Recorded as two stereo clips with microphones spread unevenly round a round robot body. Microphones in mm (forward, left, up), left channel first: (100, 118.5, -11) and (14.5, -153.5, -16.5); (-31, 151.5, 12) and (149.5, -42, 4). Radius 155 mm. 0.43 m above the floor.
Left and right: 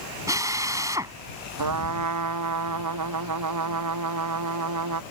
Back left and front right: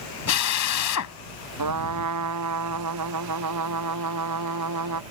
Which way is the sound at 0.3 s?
175° left.